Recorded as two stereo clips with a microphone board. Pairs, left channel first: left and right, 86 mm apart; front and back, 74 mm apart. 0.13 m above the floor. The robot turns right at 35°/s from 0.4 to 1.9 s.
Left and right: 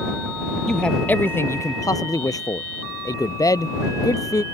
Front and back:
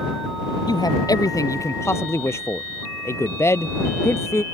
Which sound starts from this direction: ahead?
A man speaking, at 0.7 s.